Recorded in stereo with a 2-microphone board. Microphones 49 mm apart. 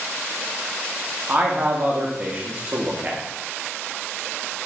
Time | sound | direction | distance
1.3 | a man speaking | 30° right (ahead or behind) | 0.9 m